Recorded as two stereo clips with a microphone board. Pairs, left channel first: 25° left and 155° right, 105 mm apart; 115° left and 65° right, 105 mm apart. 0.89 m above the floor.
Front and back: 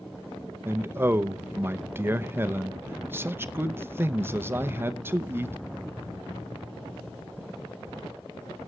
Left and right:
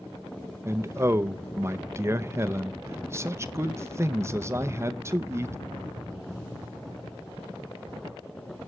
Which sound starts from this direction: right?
A man speaking, at 0.7 s.